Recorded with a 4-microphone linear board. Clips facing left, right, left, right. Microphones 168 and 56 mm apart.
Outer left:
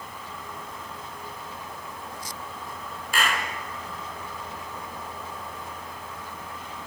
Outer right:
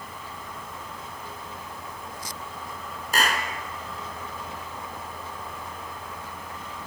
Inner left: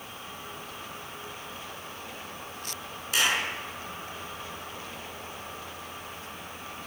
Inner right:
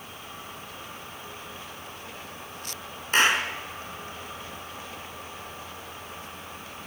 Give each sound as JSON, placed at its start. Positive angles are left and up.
{"t": 3.1, "sound": "a clap", "side_deg": -40, "distance_m": 3.0}